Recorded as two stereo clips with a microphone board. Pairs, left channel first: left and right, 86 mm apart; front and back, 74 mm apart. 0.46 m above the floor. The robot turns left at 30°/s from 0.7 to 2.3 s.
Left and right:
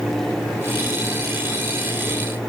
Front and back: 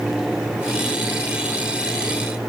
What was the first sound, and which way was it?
Only background noise.